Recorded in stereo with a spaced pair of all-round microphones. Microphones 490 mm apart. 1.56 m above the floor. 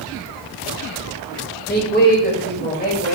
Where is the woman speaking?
20° left (ahead or behind), 1.5 m.